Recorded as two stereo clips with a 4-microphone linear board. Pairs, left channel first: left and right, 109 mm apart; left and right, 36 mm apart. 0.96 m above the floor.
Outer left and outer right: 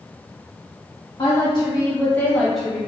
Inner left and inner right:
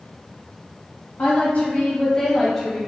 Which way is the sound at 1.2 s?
50° left (ahead or behind).